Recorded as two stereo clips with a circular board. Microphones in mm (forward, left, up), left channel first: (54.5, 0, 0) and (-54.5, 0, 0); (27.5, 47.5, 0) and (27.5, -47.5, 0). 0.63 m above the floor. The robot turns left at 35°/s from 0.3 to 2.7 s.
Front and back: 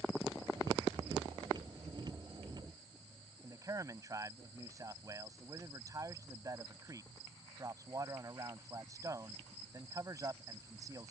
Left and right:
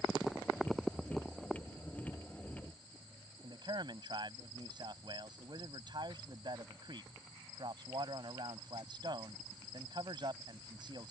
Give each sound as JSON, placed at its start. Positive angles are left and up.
{"t": 3.4, "sound": "a man speaking", "azimuth_deg": -120}